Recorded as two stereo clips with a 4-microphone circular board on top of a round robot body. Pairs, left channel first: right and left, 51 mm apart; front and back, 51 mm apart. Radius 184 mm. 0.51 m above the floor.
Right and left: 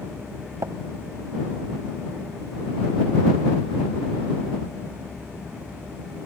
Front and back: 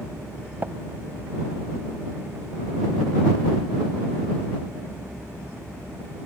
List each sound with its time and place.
0.6 s tapping: 120° left